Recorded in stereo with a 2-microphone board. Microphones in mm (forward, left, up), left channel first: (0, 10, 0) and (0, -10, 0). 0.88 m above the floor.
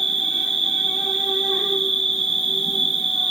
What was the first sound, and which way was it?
An insect, 15° left (ahead or behind).